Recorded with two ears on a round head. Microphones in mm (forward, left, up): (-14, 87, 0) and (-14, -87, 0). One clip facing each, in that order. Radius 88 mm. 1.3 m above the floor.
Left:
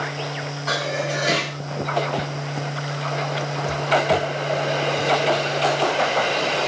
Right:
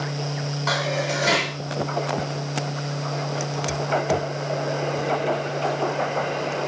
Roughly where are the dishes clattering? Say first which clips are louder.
Even; right.